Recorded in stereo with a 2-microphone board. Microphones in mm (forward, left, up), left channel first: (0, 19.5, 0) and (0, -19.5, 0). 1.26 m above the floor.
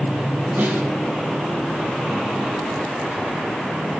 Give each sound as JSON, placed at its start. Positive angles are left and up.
{"t": 0.6, "sound": "a snare drum", "side_deg": -55, "distance_m": 5.0}